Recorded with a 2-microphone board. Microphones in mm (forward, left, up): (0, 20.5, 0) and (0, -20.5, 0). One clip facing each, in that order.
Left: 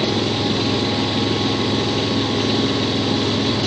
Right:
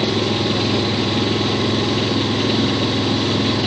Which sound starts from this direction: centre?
An engine running, at 0.0 s.